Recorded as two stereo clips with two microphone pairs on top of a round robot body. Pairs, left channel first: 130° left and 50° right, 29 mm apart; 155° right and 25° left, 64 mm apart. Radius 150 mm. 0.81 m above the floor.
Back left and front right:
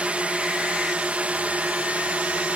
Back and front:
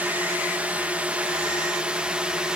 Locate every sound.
0.0 s a drone: 25° right; by 2.6 s 45° right